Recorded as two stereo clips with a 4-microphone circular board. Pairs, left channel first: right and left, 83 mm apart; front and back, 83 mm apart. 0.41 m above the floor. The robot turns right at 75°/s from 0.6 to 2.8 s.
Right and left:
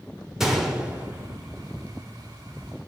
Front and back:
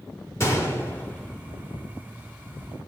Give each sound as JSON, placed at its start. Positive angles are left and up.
{"t": 0.4, "sound": "a gunshot", "azimuth_deg": 10, "distance_m": 0.8}